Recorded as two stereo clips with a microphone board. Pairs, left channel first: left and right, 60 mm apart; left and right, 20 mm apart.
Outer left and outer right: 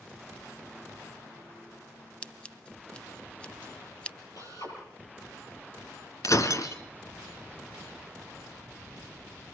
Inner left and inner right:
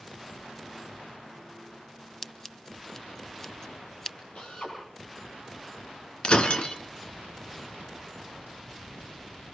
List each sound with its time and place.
2.2 s scissors: 20° left (ahead or behind), 0.9 m
4.3 s a drill: 70° left (ahead or behind), 9.5 m
6.2 s breaking glass: 65° left (ahead or behind), 2.5 m